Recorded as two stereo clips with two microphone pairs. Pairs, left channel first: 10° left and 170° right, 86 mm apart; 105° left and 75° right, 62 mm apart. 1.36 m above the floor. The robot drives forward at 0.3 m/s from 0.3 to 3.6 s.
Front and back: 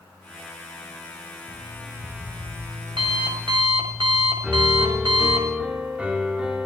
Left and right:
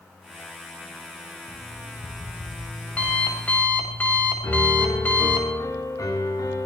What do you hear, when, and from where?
1.5 s an alarm clock: 170° left, 5 m
4.4 s a piano: 115° left, 3.5 m